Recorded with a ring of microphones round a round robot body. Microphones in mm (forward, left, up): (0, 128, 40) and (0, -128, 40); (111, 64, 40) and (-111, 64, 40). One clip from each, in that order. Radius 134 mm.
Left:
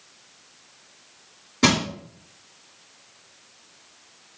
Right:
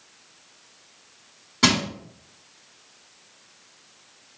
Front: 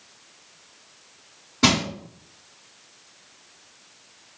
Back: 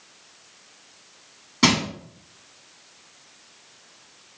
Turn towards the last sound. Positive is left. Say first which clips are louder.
# even, even
turn(degrees=-150)